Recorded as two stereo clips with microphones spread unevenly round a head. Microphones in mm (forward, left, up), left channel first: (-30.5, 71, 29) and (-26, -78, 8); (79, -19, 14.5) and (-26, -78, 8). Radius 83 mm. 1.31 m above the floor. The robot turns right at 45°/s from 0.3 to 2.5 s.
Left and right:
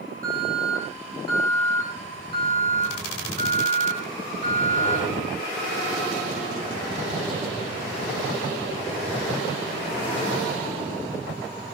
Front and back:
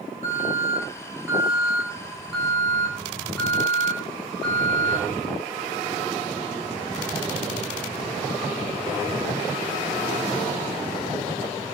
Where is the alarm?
125° right, 10 m; by 5.0 s 25° right, 10 m.